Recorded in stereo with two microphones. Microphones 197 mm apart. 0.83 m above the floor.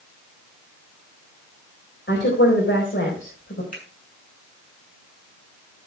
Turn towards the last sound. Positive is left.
turn(degrees=40)  # may be behind; listen again after turning